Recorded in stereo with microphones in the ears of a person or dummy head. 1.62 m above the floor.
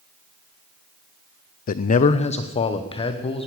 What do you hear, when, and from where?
1.7 s a man speaking: 40° left (ahead or behind), 0.5 m; by 3.5 s 25° left (ahead or behind), 1.6 m